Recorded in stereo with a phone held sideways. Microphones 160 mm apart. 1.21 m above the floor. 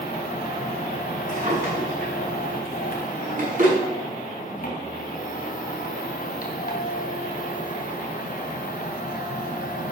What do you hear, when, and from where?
0.0 s a machine running: 65° left (ahead or behind), 2.5 m
1.3 s a drawer: 60° right (ahead or behind), 7.5 m